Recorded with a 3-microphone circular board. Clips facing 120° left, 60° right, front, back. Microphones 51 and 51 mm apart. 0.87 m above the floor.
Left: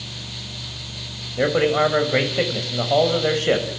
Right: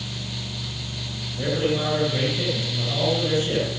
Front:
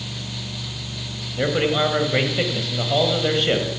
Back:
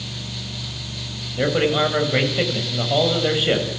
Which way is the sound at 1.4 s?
95° left.